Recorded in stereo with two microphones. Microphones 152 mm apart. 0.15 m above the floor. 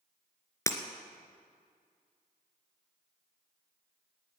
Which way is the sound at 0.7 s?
20° left (ahead or behind).